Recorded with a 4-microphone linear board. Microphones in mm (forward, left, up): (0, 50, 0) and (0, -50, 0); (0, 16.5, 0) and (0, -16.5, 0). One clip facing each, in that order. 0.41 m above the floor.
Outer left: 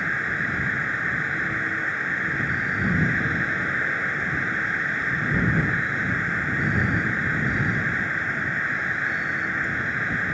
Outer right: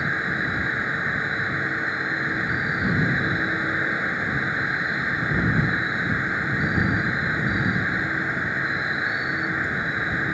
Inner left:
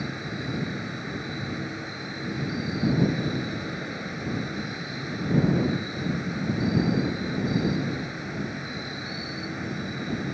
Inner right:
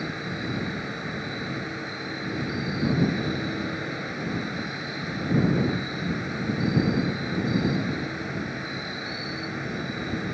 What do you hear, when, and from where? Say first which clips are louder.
0.0 s an insect: outer right 1 dB, inner right 1 dB; 10° right (ahead or behind)